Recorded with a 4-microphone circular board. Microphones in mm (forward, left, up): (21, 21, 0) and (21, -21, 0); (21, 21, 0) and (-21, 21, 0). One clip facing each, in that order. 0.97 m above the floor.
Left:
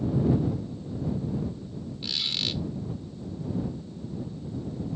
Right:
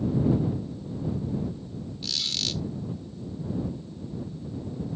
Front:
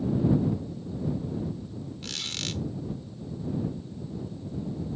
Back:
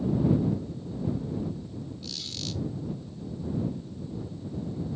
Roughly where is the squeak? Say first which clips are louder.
Left 1 dB, front 3 dB; ahead.